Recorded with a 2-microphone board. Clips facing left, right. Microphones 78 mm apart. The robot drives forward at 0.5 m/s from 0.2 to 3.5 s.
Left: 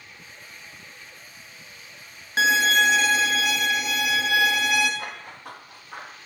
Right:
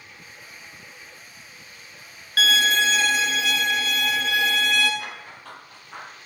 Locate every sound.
2.4 s a violin: 25° left (ahead or behind), 0.7 m; by 4.9 s 10° left (ahead or behind), 1.2 m
5.0 s running footsteps: 20° left (ahead or behind), 3 m; by 6.2 s 10° left (ahead or behind), 4.5 m